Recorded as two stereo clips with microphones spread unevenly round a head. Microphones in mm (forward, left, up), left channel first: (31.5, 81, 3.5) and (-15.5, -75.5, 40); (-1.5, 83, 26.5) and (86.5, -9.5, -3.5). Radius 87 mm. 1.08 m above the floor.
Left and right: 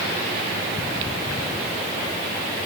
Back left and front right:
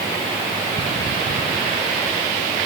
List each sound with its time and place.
Only background noise.